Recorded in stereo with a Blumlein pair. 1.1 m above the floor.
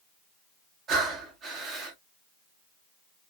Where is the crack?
No crack in this recording.